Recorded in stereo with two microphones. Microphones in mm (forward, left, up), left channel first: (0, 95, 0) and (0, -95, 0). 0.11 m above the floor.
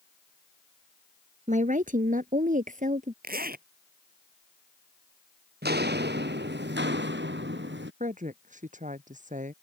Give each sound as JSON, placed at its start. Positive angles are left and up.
{"t": 1.5, "sound": "a woman speaking", "side_deg": -40}
{"t": 3.2, "sound": "a zipper", "side_deg": -55}
{"t": 5.6, "sound": "footsteps", "side_deg": -60}
{"t": 8.0, "sound": "a woman speaking", "side_deg": -40}